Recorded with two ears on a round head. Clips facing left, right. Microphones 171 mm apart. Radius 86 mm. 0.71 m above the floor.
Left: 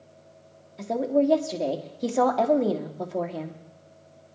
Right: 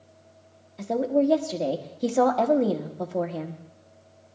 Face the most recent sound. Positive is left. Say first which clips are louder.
# even
turn(degrees=0)  # may be behind; listen again after turning